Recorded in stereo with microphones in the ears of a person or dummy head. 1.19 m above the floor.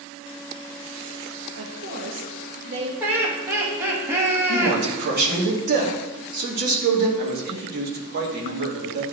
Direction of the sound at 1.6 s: 65° right (ahead or behind).